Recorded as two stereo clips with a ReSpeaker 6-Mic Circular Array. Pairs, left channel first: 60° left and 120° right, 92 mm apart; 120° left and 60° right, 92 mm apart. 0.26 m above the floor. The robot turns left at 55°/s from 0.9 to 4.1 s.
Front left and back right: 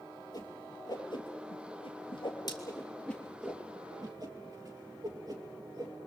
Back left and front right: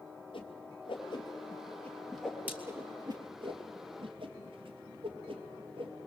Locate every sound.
0.3 s a whoosh: 100° left, 3 m; by 5.9 s 75° right, 3 m